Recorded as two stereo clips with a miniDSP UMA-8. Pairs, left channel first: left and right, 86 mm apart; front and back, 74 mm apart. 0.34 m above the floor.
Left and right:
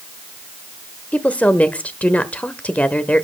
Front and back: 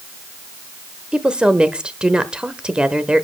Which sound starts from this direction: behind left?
A woman speaking, at 1.1 s.